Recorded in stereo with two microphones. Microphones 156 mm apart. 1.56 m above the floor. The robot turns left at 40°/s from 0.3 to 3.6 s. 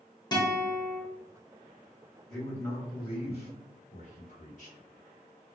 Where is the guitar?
25° left (ahead or behind), 0.8 m; by 1.0 s 55° left (ahead or behind), 0.8 m.